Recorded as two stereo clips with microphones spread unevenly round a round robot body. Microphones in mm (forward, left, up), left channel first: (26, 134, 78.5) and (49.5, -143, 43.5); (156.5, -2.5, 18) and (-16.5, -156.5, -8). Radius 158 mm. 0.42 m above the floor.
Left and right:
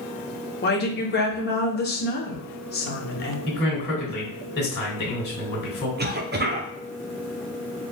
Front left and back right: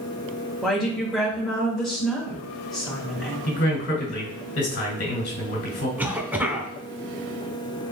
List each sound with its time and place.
0.6 s a woman speaking: 140° left, 1.1 m
3.5 s a man speaking: 40° left, 2.0 m
6.0 s a cough: 65° right, 1.0 m